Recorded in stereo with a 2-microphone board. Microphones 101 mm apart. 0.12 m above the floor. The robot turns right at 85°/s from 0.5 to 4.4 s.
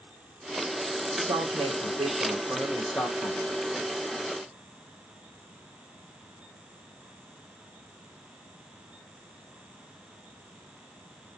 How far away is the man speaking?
About 5.5 m.